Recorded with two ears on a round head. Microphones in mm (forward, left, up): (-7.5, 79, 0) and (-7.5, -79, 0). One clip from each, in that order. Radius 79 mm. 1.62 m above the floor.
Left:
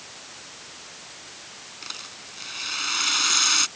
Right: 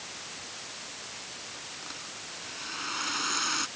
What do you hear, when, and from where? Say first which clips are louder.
1.8 s a rattle: left 3 dB; 75° left (ahead or behind)